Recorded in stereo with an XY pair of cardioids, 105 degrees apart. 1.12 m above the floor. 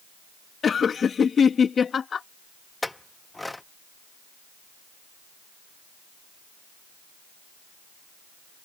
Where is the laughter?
45° left.